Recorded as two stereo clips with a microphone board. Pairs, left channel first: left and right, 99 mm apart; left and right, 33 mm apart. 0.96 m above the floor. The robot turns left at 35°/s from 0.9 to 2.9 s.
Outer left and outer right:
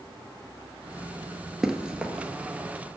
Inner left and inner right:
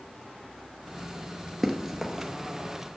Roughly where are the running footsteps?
Centre.